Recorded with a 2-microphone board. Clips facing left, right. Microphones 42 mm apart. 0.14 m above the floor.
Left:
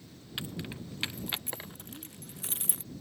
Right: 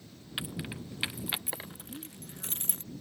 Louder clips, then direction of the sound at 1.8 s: Right 2 dB; 35° right (ahead or behind).